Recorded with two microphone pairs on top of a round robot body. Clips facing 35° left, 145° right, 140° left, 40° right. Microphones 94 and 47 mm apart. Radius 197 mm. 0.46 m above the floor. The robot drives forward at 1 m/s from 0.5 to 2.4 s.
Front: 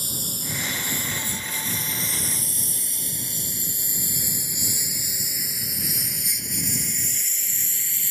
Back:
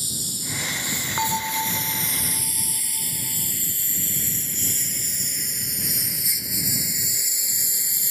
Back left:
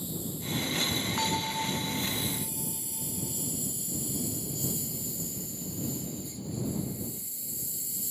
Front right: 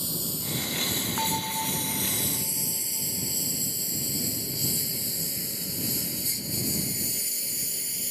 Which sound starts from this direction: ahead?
A lawn mower, at 0.0 s.